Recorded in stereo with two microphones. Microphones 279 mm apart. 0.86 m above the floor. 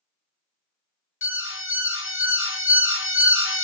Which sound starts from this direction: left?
An alarm, at 1.2 s.